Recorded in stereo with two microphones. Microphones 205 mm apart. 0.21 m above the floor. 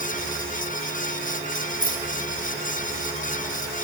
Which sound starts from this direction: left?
Keys jangling, at 1.8 s.